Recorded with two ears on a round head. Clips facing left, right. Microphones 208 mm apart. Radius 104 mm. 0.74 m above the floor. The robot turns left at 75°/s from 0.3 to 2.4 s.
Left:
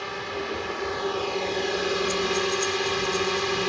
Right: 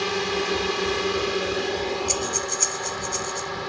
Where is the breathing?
75° right (ahead or behind); by 3.5 s 80° right.